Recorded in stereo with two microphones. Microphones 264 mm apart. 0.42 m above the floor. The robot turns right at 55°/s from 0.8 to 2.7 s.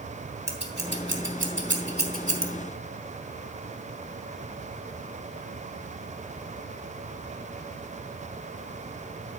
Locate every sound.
0.5 s scissors: 40° right (ahead or behind), 1.5 m; by 2.5 s 20° right (ahead or behind), 1.5 m